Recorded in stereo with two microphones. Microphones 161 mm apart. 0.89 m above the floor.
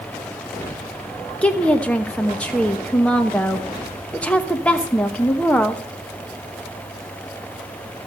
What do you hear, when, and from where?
1.4 s a woman speaking: 5° left (ahead or behind), 1.0 m